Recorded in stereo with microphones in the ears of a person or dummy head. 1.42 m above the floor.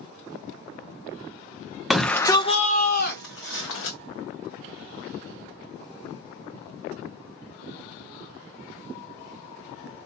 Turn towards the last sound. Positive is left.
turn(degrees=75)  # may be behind; listen again after turning